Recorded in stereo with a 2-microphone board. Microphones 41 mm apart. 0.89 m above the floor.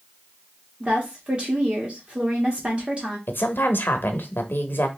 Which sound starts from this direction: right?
A woman speaking, at 0.8 s.